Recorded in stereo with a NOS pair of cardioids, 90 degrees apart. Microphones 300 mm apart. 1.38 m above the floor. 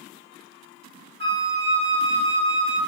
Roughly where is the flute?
Ahead right.